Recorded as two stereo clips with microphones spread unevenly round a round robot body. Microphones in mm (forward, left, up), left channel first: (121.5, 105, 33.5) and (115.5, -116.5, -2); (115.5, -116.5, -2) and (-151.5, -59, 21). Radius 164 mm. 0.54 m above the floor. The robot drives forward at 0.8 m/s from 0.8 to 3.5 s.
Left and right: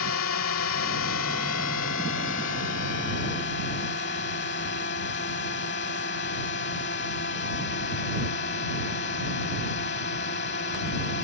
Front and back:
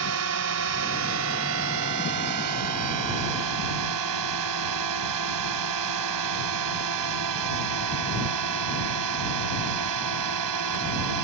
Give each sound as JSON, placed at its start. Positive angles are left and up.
{"t": 0.0, "sound": "a drone", "azimuth_deg": 130}